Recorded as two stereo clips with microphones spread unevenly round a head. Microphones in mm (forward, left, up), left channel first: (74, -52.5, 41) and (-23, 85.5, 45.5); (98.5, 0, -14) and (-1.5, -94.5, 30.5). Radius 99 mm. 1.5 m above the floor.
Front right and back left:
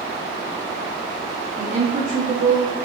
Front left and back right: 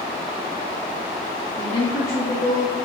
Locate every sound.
1.6 s a woman speaking: 90° left, 1.2 m